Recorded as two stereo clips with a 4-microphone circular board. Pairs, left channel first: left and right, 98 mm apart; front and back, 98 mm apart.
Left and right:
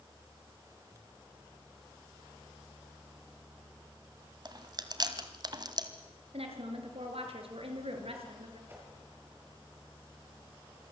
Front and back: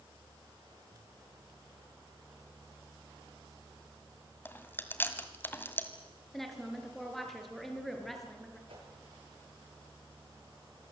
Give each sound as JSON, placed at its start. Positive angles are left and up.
{"t": 4.5, "sound": "chewing", "azimuth_deg": -60, "distance_m": 1.9}
{"t": 6.3, "sound": "a woman speaking", "azimuth_deg": -90, "distance_m": 5.0}
{"t": 8.7, "sound": "a whoosh", "azimuth_deg": -160, "distance_m": 7.0}